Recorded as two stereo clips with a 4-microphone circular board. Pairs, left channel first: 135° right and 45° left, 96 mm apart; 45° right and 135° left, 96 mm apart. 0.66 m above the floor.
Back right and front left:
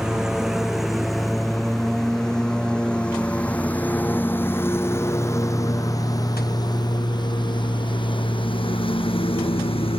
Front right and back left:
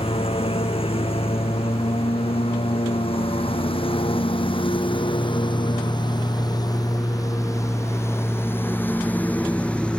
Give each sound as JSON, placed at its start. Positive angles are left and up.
{"t": 0.0, "sound": "a lawn mower", "azimuth_deg": -40}